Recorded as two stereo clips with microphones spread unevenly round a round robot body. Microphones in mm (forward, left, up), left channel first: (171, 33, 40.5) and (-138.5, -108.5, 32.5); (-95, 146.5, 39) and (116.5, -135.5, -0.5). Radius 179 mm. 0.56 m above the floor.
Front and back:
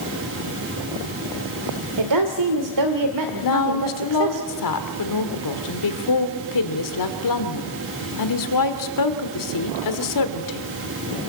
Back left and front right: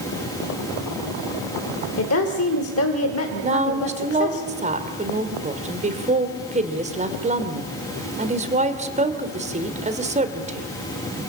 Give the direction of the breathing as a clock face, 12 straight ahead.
I don't hear breathing.